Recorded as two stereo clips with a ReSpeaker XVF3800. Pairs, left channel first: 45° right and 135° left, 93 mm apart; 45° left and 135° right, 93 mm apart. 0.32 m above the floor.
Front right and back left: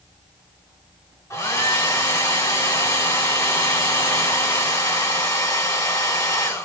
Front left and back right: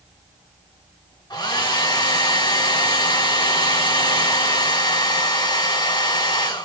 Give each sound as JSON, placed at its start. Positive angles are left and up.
{"t": 1.3, "sound": "a hair dryer", "azimuth_deg": 10, "distance_m": 2.0}